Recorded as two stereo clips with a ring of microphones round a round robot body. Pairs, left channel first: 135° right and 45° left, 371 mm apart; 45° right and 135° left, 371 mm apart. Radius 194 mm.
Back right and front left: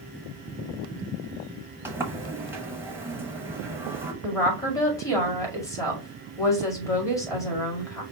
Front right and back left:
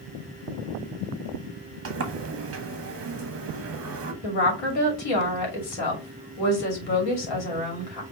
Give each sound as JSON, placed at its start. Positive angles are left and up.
{"t": 1.9, "sound": "a sliding door", "azimuth_deg": 125, "distance_m": 1.1}
{"t": 4.2, "sound": "a woman speaking", "azimuth_deg": -55, "distance_m": 2.5}